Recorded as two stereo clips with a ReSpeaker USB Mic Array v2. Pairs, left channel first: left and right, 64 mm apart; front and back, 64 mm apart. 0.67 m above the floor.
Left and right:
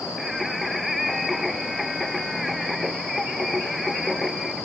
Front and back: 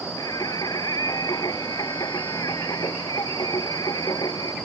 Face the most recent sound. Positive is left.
turn(degrees=0)